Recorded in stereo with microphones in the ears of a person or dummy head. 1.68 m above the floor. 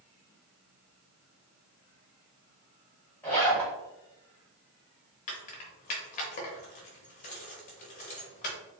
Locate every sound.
3.2 s a zipper: 10° left (ahead or behind), 1.5 m
5.3 s keys jangling: 40° left (ahead or behind), 0.7 m